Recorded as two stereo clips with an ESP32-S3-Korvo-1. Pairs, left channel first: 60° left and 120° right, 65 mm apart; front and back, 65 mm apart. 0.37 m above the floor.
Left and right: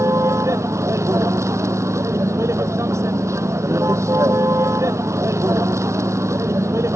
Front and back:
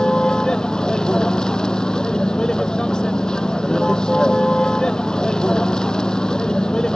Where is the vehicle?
80° right.